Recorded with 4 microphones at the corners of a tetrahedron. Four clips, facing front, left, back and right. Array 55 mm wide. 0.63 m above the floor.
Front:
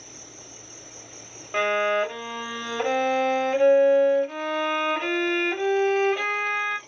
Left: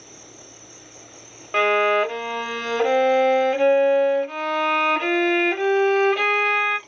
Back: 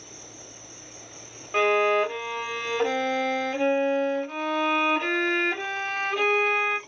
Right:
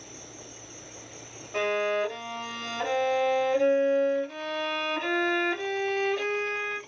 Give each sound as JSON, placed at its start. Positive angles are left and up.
{"t": 0.0, "sound": "an insect", "azimuth_deg": 70, "distance_m": 2.5}
{"t": 1.5, "sound": "a violin", "azimuth_deg": 80, "distance_m": 1.1}